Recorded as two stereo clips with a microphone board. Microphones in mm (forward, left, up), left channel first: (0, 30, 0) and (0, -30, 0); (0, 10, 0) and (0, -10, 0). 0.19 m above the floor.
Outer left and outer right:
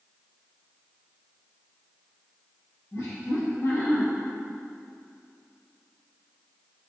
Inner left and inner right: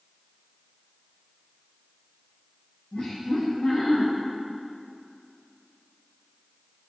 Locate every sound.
2.9 s laughter: 65° left (ahead or behind), 3.5 m